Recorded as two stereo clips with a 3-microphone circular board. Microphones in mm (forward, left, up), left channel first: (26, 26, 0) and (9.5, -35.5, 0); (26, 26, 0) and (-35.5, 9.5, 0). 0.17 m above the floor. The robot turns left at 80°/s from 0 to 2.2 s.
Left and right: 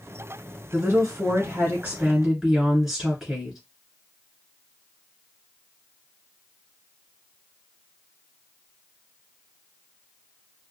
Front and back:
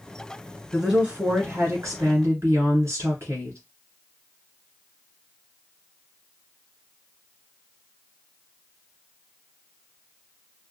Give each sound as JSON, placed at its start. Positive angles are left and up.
{"t": 0.7, "sound": "a woman speaking", "azimuth_deg": -60, "distance_m": 1.5}